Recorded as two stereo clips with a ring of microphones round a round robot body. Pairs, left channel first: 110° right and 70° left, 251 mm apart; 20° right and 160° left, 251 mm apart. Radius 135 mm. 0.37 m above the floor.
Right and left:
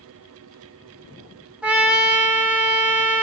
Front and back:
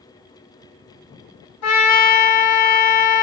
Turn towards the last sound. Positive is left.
turn(degrees=-15)